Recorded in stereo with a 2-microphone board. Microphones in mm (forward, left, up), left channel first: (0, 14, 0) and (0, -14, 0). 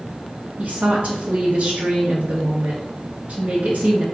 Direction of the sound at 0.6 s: 60° right (ahead or behind).